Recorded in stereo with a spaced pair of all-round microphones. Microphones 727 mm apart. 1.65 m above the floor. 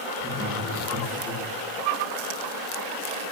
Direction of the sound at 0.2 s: 15° right (ahead or behind).